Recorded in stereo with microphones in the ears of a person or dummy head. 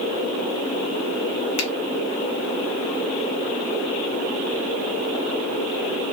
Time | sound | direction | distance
1.6 | a finger snap | 85° left | 0.8 m